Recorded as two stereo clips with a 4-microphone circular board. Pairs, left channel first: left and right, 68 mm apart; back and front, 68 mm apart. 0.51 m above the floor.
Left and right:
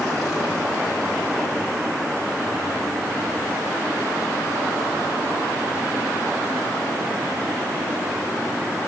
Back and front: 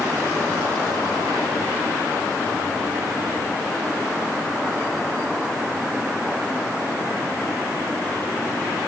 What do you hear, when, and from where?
Only background noise.